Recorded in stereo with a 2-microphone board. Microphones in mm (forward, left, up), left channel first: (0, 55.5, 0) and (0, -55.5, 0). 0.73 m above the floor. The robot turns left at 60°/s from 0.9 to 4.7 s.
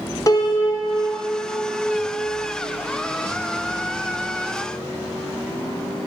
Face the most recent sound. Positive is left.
turn(degrees=165)